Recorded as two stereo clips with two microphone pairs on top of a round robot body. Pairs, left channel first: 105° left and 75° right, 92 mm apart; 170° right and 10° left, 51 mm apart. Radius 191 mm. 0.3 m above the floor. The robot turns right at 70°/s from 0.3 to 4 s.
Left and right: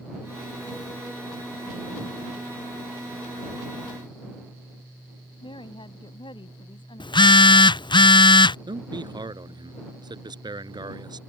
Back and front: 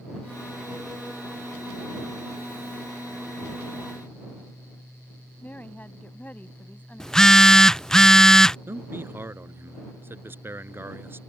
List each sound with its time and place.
5.4 s a woman speaking: 135° left
7.0 s a phone buzzing: 120° left
8.7 s a man speaking: 35° right